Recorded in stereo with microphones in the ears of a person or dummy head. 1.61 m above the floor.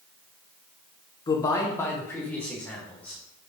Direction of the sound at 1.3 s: 25° left (ahead or behind).